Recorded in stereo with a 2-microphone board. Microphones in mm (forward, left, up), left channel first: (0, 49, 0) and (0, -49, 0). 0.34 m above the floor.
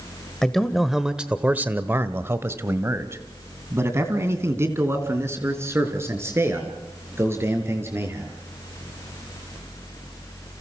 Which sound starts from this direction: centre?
A man speaking, at 0.4 s.